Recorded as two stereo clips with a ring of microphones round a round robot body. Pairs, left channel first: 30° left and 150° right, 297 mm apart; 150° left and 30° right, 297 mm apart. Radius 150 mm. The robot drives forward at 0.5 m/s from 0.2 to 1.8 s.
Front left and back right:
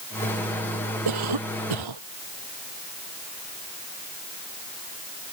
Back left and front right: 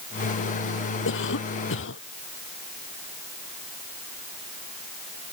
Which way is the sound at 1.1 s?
160° right.